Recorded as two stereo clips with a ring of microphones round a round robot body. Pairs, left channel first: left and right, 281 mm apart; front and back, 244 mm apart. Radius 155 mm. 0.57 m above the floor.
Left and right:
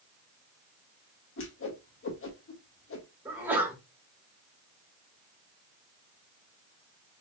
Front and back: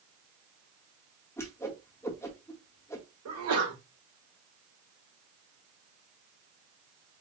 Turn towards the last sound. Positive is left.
turn(degrees=-175)